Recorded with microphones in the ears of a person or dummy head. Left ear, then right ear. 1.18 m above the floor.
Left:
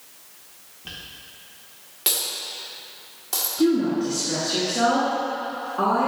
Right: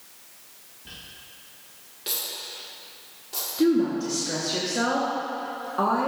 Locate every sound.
0.8 s a dropped coin: 40° left (ahead or behind), 1.2 m
3.6 s a woman speaking: 25° right (ahead or behind), 0.9 m